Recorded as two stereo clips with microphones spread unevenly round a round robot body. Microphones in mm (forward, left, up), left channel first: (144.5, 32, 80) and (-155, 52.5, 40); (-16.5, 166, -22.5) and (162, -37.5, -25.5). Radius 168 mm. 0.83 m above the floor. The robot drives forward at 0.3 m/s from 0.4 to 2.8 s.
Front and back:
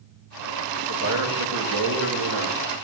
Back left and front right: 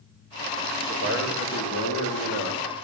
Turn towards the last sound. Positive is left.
turn(degrees=175)